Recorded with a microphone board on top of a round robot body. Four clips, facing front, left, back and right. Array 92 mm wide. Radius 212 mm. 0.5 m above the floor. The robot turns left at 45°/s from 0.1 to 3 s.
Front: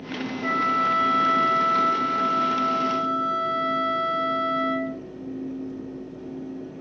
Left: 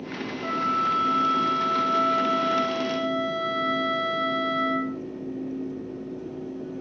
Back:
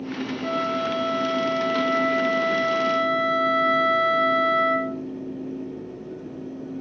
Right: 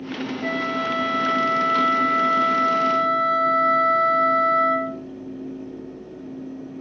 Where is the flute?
70° right, 4 m; by 5.0 s 170° left, 4 m.